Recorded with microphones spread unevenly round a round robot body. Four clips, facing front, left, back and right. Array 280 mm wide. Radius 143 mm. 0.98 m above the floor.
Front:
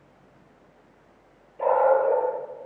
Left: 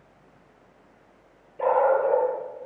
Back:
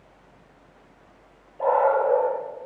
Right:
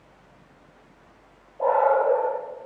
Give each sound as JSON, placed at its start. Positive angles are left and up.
{"t": 1.6, "sound": "a dog barking", "azimuth_deg": 85, "distance_m": 9.5}